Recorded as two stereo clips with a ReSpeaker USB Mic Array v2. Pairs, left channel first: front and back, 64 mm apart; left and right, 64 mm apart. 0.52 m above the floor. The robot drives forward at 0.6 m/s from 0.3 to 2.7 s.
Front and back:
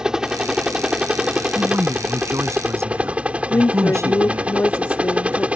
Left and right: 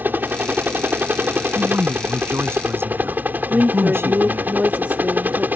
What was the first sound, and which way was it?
A helicopter, 110° right.